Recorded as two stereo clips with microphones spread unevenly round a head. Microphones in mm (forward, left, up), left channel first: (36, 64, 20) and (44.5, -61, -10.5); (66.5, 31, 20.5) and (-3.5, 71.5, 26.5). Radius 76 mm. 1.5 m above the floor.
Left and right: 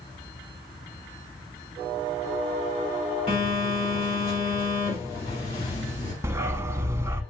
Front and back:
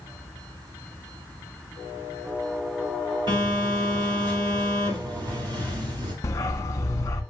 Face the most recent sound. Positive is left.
turn(degrees=-15)